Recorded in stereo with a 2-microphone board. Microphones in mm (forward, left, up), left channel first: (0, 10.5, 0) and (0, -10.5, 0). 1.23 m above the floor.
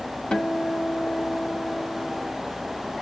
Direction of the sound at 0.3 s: 45° left (ahead or behind).